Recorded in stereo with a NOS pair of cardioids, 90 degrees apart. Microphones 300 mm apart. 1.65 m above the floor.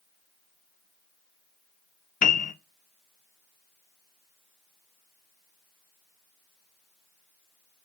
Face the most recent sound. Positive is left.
turn(degrees=30)